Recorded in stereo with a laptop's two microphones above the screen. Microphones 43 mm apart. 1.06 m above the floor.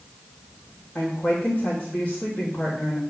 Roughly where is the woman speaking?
Left.